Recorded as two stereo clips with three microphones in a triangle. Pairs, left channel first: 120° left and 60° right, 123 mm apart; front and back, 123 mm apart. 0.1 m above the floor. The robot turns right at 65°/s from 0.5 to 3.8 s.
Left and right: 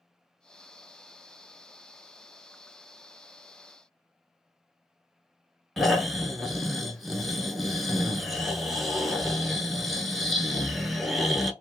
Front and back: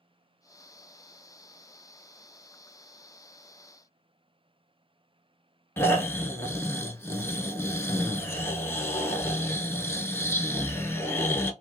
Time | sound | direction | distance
5.8 | snoring | 35° left | 0.5 m